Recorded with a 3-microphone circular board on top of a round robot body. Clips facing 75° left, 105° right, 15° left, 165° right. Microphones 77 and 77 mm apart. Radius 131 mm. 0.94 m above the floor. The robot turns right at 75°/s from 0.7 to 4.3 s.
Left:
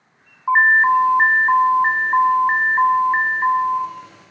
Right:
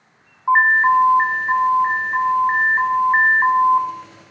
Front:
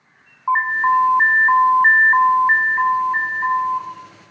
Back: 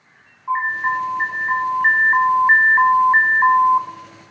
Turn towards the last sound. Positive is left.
turn(degrees=-100)